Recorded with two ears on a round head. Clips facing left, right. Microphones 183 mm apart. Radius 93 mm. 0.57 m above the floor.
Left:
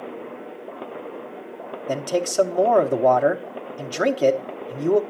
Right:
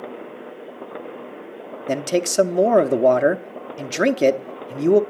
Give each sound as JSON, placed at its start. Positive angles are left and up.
{"t": 1.9, "sound": "a man speaking", "side_deg": -25, "distance_m": 0.8}